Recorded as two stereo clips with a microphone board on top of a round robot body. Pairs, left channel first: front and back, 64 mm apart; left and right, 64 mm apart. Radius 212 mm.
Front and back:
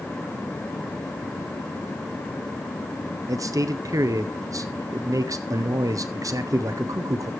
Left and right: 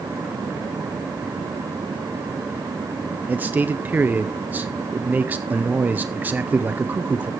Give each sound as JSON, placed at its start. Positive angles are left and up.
{"t": 3.3, "sound": "a man speaking", "azimuth_deg": -150, "distance_m": 0.8}